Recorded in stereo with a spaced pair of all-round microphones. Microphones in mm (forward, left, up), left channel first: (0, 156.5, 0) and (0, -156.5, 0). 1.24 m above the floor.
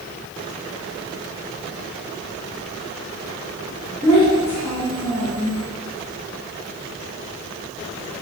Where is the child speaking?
15° left (ahead or behind), 1.3 m.